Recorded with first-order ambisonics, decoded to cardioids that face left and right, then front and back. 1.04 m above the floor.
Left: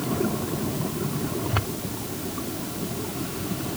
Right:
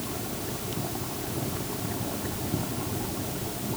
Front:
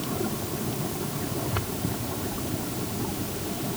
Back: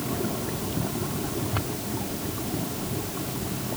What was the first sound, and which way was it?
Only background noise.